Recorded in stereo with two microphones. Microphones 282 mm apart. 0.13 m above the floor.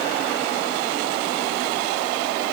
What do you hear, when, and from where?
Only background noise.